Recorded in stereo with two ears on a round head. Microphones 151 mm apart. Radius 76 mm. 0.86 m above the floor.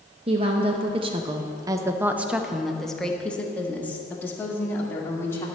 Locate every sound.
0.3 s a woman speaking: 35° right (ahead or behind), 0.8 m; by 5.5 s 15° left (ahead or behind), 2 m